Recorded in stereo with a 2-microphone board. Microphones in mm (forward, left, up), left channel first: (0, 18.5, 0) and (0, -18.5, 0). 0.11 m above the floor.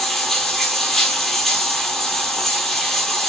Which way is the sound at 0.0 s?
10° left (ahead or behind).